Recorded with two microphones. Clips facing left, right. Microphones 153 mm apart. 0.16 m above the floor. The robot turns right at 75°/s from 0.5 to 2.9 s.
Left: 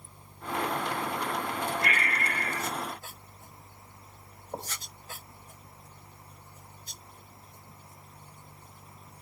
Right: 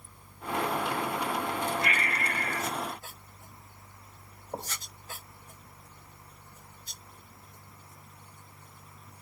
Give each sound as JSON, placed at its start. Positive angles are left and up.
{"t": 1.8, "sound": "breathing", "azimuth_deg": 75, "distance_m": 1.6}